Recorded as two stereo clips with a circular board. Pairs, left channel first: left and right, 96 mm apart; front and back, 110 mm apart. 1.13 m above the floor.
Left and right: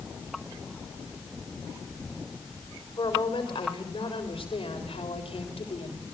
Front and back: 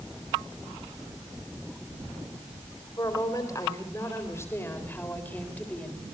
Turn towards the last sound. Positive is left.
turn(degrees=80)